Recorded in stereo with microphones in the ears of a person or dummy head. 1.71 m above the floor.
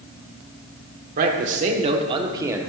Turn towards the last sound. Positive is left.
turn(degrees=-10)  # may be behind; listen again after turning